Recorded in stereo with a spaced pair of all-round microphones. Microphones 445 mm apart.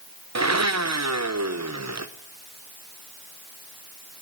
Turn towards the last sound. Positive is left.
turn(degrees=-35)  # may be behind; listen again after turning